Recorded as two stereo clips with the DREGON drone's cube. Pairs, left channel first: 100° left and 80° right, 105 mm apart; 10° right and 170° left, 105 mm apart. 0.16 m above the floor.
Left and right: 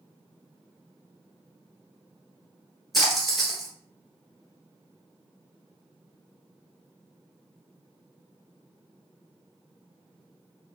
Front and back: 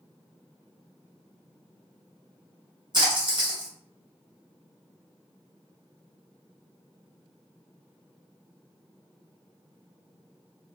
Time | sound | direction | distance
2.9 | a splash | 170° right | 1.7 m